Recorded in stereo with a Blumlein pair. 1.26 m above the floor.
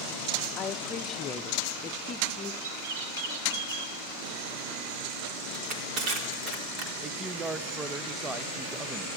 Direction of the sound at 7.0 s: 10° right.